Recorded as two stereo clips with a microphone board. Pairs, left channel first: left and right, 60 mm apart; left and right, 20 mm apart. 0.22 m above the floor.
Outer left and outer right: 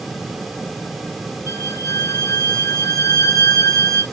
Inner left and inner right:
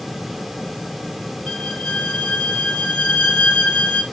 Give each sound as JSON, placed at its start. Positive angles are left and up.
{"t": 1.5, "sound": "a violin", "side_deg": 80, "distance_m": 4.0}